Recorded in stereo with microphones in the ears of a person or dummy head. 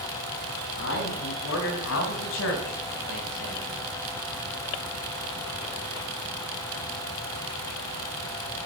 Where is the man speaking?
70° left (ahead or behind), 7 m; by 3.9 s 85° left, 4.5 m.